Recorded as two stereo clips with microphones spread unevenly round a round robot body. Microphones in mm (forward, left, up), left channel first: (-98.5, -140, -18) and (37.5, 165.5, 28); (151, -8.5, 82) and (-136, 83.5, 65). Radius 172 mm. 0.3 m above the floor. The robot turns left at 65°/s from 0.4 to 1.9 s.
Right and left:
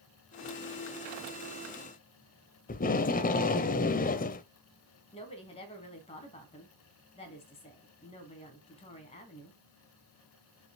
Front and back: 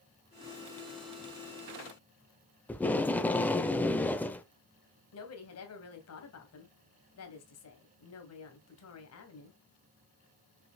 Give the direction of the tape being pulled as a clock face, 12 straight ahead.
3 o'clock.